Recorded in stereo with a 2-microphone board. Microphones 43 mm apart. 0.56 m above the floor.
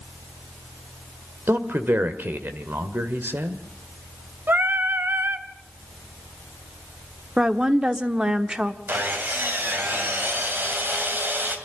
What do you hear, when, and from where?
1.5 s a man speaking: 60° right (ahead or behind), 1.9 m
4.5 s singing: 55° right (ahead or behind), 1.3 m
7.4 s a woman speaking: 20° right (ahead or behind), 1.2 m
8.9 s sawing: 55° right (ahead or behind), 2.5 m